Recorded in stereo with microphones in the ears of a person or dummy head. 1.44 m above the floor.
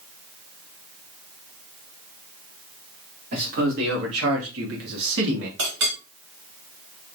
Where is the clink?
70° right (ahead or behind), 1.9 m.